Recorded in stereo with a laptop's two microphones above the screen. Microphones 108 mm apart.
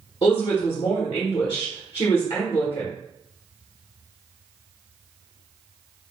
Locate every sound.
0.2 s a woman speaking: 50° left (ahead or behind), 1.0 m